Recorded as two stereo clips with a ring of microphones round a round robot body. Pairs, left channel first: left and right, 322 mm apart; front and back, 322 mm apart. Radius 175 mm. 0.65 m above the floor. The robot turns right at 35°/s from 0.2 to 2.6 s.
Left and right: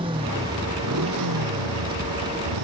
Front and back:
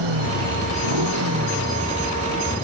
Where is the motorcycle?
165° right; by 2.6 s 85° right.